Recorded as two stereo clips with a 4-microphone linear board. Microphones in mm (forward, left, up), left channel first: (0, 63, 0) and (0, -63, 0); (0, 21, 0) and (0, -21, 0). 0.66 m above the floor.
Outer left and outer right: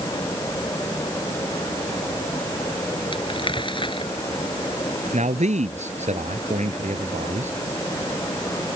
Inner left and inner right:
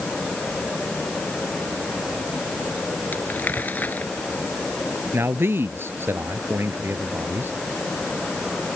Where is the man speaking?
70° right (ahead or behind).